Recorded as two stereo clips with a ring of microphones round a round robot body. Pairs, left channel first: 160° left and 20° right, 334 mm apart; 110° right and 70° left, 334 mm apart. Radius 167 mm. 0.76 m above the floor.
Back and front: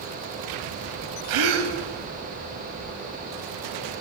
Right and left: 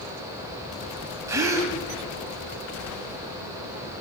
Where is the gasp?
10° right, 1.0 m.